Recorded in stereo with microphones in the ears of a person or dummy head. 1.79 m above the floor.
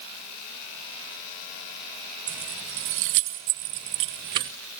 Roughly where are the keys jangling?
Right.